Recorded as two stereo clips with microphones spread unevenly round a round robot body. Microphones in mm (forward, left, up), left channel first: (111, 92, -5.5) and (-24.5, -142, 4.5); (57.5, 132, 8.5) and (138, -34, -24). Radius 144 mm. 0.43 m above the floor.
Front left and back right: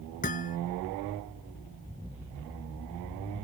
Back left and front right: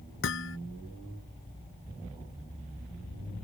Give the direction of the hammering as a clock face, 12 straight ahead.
8 o'clock.